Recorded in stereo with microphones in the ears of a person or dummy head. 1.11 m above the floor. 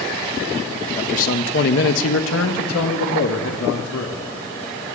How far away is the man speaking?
About 1.0 m.